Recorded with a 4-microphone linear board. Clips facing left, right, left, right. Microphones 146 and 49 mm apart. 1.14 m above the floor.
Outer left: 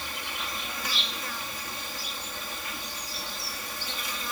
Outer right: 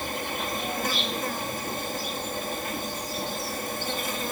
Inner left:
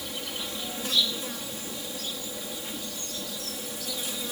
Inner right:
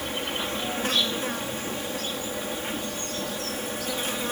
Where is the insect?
50° right (ahead or behind).